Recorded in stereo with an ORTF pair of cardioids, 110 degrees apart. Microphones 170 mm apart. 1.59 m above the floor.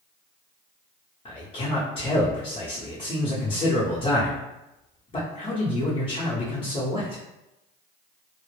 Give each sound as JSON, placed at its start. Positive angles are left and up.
{"t": 1.2, "sound": "a man speaking", "azimuth_deg": 35, "distance_m": 0.8}